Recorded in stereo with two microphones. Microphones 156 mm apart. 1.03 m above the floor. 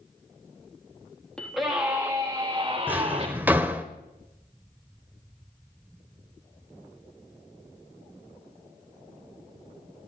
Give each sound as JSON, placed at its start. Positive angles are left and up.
{"t": 1.4, "sound": "a scream", "side_deg": 5, "distance_m": 1.8}
{"t": 2.9, "sound": "a drawer", "side_deg": -10, "distance_m": 1.2}